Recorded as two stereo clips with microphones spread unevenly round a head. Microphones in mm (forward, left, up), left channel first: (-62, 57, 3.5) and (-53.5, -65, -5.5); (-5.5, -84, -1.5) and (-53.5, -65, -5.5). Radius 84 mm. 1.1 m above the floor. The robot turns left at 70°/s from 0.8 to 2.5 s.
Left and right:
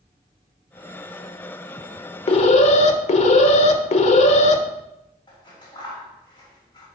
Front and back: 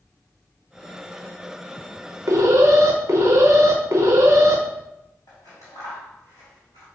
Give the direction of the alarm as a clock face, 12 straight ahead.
8 o'clock.